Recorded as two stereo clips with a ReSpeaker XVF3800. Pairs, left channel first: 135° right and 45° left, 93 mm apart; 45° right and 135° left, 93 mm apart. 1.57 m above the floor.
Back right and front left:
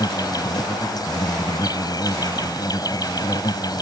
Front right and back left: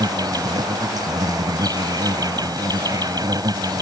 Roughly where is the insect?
Behind.